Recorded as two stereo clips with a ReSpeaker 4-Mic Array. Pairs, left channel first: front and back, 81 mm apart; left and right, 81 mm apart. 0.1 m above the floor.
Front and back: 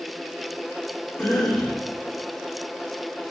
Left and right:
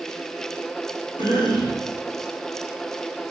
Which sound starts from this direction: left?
A cough, at 1.2 s.